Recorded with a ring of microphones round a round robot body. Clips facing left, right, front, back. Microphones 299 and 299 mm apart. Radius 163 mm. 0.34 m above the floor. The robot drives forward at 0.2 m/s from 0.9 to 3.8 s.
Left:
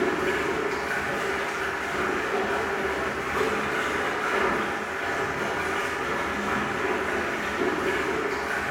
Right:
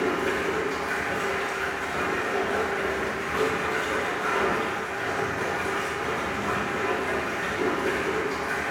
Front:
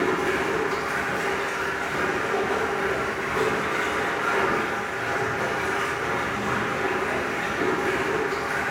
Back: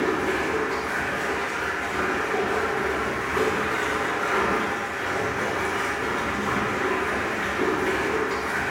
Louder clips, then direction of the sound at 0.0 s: Left 1 dB, even; straight ahead.